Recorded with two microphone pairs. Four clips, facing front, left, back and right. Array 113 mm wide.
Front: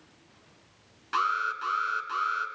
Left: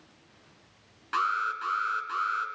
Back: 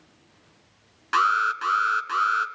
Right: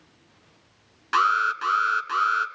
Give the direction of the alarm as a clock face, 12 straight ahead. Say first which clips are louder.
Right 7 dB, back 6 dB; 5 o'clock.